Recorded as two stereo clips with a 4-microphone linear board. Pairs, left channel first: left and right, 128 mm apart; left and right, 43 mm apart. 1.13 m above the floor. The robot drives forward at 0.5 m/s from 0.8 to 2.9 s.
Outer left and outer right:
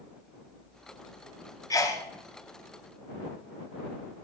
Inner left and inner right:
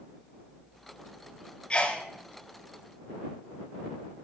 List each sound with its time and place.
1.7 s a sneeze: 25° left (ahead or behind), 0.7 m